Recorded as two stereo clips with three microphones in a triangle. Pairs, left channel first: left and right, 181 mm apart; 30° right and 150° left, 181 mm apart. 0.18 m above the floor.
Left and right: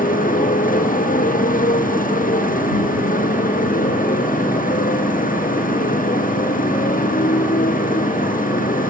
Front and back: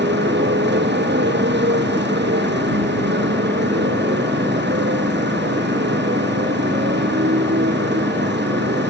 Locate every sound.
0.0 s a motorcycle: 130° left